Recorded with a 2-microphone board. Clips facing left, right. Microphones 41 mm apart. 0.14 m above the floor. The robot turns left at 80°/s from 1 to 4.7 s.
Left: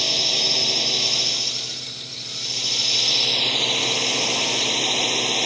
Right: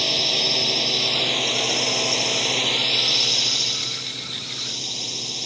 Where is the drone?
10° right; by 5.5 s 55° left.